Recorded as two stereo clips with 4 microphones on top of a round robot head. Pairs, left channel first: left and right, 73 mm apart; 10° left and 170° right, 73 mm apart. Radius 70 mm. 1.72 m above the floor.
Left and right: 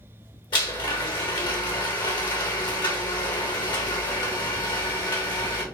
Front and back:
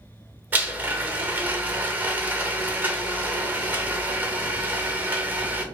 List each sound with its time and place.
0.5 s a blender: 125° left, 0.8 m